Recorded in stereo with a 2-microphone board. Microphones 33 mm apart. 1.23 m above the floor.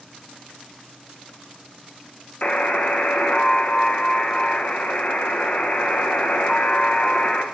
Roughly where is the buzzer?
Left.